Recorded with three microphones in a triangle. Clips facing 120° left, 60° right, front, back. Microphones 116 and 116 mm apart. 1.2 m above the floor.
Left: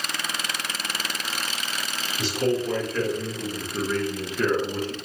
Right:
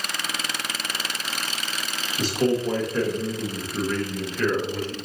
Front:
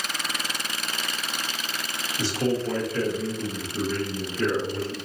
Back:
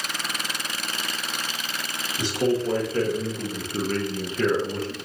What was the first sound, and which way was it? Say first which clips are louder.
A man speaking: right 2 dB, back 2 dB; 105° right.